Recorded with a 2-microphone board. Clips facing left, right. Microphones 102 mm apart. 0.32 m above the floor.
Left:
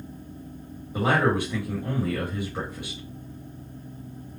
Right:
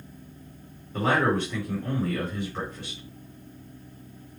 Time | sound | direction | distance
0.9 | a man speaking | 15° left (ahead or behind) | 1.7 m